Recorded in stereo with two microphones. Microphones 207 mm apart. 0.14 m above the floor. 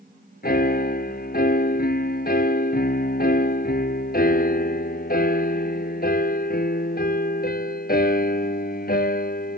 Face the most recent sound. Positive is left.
turn(degrees=50)  # may be behind; listen again after turning